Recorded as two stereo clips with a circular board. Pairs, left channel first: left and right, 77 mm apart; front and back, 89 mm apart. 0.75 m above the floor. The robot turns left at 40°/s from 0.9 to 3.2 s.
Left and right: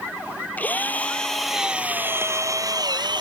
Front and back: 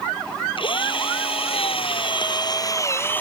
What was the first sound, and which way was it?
A drill, 20° left.